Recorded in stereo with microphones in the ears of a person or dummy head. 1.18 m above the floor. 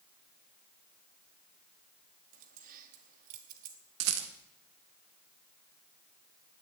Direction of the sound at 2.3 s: 45° right (ahead or behind).